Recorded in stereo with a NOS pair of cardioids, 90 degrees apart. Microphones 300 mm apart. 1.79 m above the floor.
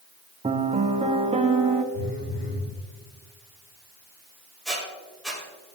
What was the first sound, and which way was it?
A piano, 20° right.